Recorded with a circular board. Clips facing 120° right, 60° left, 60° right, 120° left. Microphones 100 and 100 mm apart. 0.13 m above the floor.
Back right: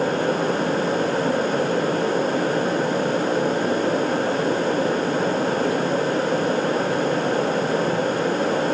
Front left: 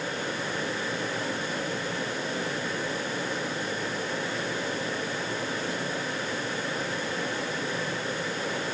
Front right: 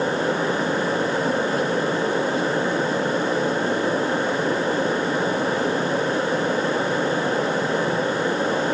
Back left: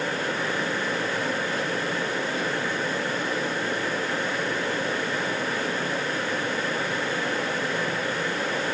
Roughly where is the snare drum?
No snare drum in this recording.